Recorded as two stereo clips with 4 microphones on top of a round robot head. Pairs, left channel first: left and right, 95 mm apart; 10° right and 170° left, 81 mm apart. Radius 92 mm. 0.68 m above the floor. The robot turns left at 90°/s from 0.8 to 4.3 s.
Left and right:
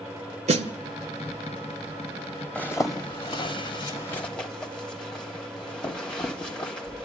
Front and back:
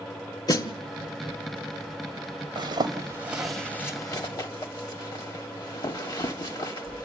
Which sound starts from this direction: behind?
A zipper, at 2.5 s.